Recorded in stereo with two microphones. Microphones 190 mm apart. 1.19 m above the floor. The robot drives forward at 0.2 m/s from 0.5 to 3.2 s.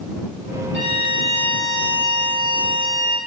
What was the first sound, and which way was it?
A violin, 75° left (ahead or behind).